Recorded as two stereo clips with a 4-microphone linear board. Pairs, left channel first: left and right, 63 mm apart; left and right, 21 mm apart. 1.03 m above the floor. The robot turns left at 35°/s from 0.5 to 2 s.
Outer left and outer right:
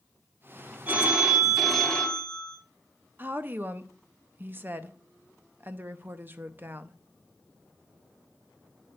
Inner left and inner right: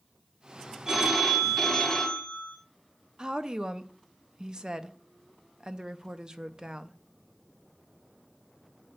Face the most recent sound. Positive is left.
turn(degrees=-30)  # may be behind; listen again after turning